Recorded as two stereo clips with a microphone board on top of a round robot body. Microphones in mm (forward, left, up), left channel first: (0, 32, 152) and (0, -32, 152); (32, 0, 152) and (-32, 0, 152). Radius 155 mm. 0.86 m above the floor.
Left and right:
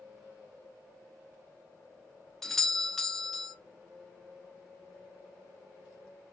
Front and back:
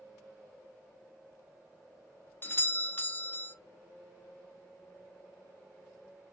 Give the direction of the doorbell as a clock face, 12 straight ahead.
12 o'clock.